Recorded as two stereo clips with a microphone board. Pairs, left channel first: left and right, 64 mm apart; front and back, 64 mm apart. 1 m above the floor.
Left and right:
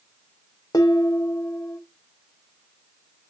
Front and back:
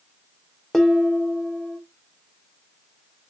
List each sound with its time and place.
0.7 s dishes clattering: 85° left, 0.7 m